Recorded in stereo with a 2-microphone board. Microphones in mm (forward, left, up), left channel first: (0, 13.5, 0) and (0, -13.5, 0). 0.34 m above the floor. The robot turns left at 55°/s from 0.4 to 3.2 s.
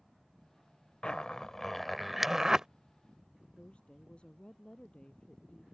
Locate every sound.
1.0 s a zipper: 35° left (ahead or behind); by 2.7 s 25° right (ahead or behind)
3.6 s a woman speaking: 40° left (ahead or behind)